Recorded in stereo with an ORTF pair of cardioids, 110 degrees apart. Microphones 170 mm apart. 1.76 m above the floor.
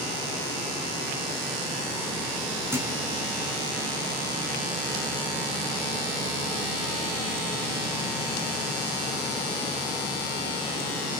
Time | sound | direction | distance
2.7 | a thud | 15° right | 5.5 m